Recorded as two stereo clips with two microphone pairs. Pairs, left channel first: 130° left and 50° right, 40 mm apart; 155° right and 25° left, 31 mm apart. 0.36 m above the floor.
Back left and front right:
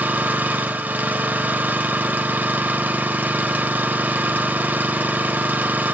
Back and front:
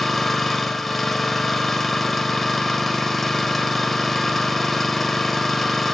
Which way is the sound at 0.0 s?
75° right.